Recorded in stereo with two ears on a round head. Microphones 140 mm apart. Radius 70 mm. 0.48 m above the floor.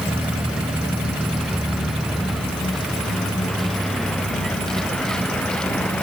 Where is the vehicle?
5° right (ahead or behind); by 6.0 s 5° left (ahead or behind).